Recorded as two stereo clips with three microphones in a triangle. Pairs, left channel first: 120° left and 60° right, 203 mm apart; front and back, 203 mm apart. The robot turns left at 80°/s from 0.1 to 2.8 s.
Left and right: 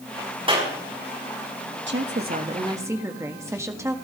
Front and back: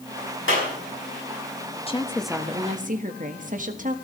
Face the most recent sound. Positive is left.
turn(degrees=-135)